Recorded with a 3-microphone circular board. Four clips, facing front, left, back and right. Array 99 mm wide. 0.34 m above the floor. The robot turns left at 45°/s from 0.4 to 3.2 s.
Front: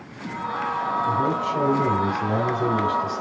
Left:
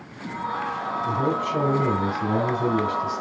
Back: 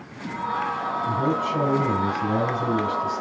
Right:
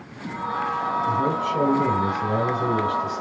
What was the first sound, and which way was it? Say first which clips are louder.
A man speaking: left 1 dB, back 2 dB; 125° left.